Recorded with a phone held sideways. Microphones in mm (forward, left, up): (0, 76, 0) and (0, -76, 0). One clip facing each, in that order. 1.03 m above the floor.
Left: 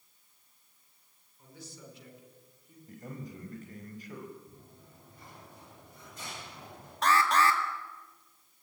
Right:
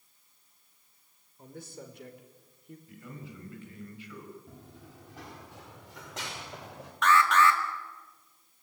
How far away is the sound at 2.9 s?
About 5.5 m.